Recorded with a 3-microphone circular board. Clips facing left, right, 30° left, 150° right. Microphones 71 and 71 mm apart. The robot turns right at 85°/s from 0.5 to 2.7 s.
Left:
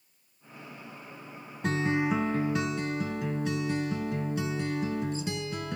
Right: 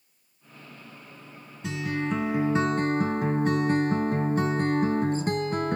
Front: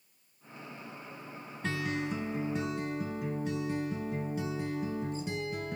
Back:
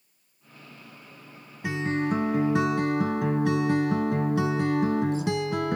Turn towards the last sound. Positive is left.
turn(degrees=-140)